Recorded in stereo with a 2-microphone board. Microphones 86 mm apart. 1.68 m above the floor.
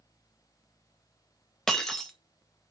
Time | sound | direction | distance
1.7 | breaking glass | 5° left (ahead or behind) | 1.3 m